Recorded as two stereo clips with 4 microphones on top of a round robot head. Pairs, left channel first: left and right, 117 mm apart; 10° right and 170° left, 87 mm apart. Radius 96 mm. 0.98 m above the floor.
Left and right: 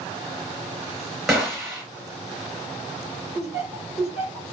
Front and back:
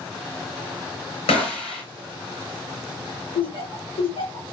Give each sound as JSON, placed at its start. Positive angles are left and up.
{"t": 1.3, "sound": "a gunshot", "azimuth_deg": 0, "distance_m": 3.0}
{"t": 3.4, "sound": "laughter", "azimuth_deg": 0, "distance_m": 4.5}